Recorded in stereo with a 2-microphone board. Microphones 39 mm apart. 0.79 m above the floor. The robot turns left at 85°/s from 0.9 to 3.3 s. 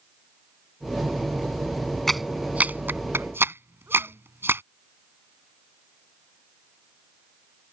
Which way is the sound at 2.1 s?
5° left (ahead or behind).